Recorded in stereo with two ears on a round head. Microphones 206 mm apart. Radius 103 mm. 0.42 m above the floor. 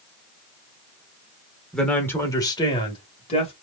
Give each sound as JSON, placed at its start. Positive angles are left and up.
{"t": 1.7, "sound": "a man speaking", "side_deg": 0, "distance_m": 1.1}